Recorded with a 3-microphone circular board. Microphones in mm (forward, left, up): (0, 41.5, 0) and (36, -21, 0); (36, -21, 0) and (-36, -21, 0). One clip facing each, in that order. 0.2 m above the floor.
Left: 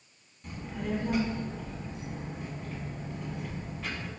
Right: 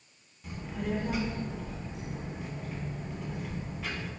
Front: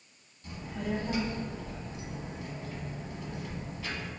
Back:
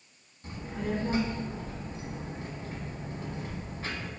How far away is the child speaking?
About 0.8 m.